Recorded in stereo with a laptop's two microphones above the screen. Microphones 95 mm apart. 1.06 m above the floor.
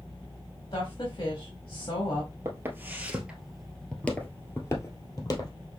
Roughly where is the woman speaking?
Left.